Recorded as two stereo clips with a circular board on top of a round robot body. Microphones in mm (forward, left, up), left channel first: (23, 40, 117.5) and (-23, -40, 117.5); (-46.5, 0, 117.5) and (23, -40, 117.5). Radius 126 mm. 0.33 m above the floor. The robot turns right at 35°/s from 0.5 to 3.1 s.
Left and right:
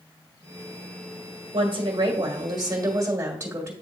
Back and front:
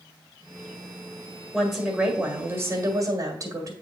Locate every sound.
1.5 s a woman speaking: 115° right, 1.7 m; by 3.7 s 60° right, 1.7 m